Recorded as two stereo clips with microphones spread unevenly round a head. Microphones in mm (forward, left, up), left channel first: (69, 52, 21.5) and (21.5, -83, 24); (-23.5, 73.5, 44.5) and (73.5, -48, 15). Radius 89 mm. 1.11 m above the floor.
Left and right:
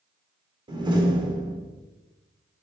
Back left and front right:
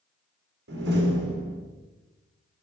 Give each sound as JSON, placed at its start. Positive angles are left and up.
{"t": 0.7, "sound": "a door slam", "azimuth_deg": -50, "distance_m": 2.5}